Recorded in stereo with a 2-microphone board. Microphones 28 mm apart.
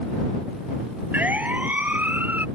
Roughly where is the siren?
Right.